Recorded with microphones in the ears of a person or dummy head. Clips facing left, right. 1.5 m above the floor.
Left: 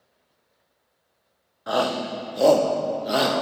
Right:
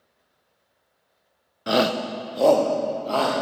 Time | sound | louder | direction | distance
1.7 | a shout | right 2 dB | 40° right (ahead or behind) | 0.6 m